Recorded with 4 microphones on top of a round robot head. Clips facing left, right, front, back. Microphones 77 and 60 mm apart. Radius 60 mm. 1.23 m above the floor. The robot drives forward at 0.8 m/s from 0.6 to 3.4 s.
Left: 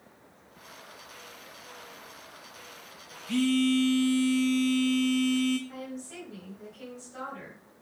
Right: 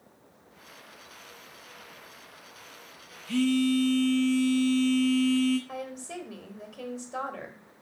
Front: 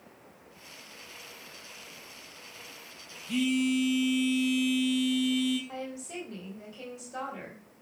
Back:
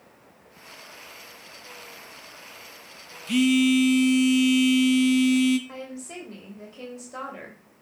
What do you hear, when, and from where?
3.3 s a phone buzzing: 170° left, 0.8 m
5.7 s a woman speaking: 120° right, 3 m